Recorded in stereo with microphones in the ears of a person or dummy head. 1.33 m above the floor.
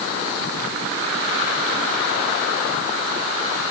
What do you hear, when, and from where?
Only background noise.